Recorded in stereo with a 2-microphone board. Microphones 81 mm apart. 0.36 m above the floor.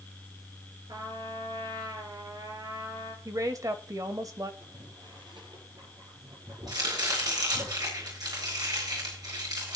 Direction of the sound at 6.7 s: 60° right (ahead or behind).